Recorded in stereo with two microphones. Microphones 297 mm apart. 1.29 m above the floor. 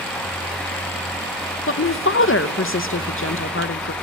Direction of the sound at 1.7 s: 45° left (ahead or behind).